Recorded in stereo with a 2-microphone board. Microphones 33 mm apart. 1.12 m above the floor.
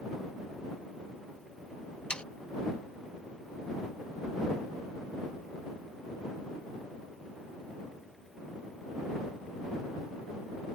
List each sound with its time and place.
2.1 s sawing: 35° left (ahead or behind)